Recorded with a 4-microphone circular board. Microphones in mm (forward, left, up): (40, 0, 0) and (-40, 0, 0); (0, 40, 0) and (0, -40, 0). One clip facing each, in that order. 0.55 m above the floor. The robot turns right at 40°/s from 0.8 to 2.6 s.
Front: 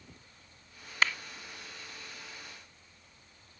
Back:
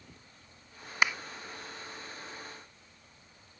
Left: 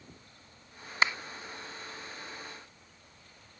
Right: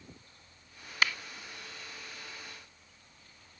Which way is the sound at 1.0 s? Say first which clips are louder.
Back 1 dB, left 2 dB; 120° left.